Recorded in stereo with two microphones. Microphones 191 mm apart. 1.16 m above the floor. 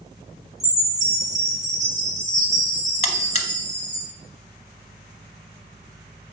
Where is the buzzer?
35° left (ahead or behind), 0.9 m.